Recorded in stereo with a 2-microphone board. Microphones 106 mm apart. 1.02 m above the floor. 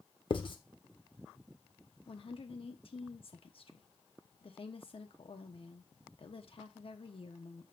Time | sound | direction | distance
0.3 | writing | 50° left (ahead or behind) | 0.9 m
2.1 | a woman speaking | 60° left (ahead or behind) | 1.1 m